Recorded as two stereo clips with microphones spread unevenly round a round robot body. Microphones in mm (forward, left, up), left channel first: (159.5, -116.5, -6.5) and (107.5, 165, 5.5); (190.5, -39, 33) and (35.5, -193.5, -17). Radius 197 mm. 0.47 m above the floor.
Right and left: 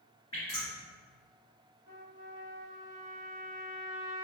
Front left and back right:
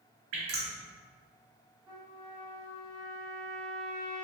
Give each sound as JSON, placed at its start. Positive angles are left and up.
{"t": 0.3, "sound": "dripping", "azimuth_deg": -155, "distance_m": 0.7}
{"t": 1.9, "sound": "a trumpet", "azimuth_deg": 145, "distance_m": 0.8}